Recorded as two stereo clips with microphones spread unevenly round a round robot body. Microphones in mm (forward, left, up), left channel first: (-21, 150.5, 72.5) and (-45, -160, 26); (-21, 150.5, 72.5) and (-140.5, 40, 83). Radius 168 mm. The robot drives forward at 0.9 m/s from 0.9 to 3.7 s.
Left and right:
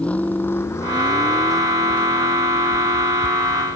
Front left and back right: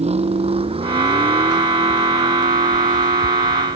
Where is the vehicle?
170° left; by 3.8 s 165° left.